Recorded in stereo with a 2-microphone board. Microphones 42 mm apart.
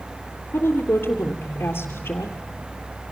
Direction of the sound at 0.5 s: 60° left (ahead or behind).